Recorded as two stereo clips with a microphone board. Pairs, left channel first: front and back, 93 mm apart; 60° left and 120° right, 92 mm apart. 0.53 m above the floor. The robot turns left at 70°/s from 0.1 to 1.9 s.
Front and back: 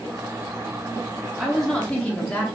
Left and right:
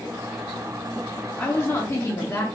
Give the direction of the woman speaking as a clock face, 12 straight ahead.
9 o'clock.